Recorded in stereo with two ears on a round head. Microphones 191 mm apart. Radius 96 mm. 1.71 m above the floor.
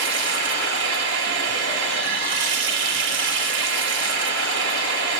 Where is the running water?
55° right (ahead or behind), 1.6 m.